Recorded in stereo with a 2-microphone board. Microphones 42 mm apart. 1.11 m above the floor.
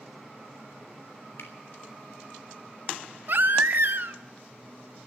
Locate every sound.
1.4 s a finger snap: 75° left (ahead or behind), 3 m
3.3 s a baby crying: 55° right (ahead or behind), 0.7 m